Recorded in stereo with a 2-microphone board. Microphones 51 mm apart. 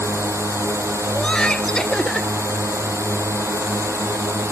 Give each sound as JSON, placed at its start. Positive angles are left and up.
{"t": 0.0, "sound": "a drone", "side_deg": -60}
{"t": 1.1, "sound": "laughter", "side_deg": 15}